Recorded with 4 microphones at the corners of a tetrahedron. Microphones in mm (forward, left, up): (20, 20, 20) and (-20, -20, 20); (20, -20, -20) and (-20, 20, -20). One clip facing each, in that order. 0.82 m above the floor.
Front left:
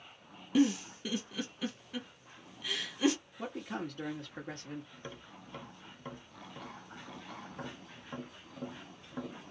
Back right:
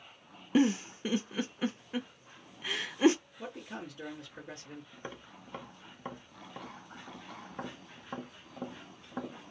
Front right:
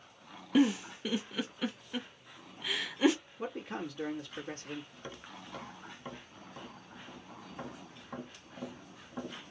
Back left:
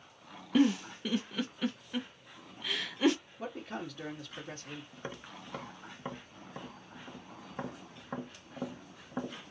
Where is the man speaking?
40° left, 1.3 m.